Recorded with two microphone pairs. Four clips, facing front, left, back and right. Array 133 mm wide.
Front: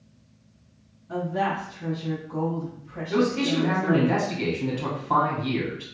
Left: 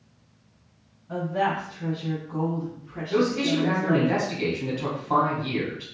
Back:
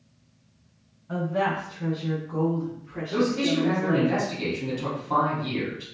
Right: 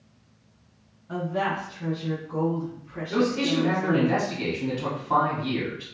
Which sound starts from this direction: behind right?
A woman speaking, at 1.1 s.